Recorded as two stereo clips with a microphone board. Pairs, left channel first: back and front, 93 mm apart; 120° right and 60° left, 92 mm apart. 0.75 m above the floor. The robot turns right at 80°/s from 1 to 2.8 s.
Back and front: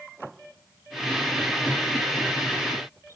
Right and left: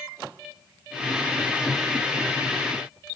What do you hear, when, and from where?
Only background noise.